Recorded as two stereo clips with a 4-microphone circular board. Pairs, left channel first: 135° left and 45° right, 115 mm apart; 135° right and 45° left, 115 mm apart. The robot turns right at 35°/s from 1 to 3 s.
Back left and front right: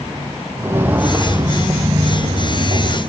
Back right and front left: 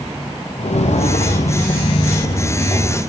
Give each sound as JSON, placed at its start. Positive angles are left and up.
{"t": 0.6, "sound": "footsteps", "azimuth_deg": -115, "distance_m": 1.2}